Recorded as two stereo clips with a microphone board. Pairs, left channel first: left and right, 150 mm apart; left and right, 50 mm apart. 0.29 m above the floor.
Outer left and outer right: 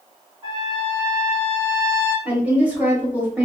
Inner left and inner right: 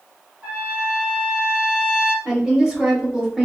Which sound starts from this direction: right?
A trumpet, at 0.4 s.